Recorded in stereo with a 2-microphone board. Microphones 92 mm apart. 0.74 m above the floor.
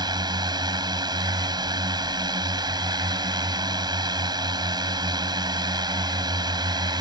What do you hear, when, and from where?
0.0 s a drone: 50° right (ahead or behind)